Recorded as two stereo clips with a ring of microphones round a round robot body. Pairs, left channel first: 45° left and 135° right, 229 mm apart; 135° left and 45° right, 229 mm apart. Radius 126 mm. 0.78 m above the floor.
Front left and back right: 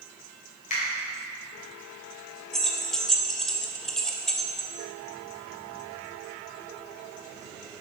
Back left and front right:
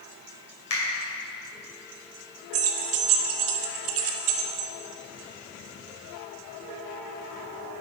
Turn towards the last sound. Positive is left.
turn(degrees=-45)